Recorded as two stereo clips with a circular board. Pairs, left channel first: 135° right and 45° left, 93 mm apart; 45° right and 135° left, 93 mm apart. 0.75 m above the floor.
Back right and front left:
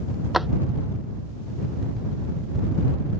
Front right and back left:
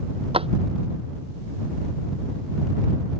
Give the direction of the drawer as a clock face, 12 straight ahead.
8 o'clock.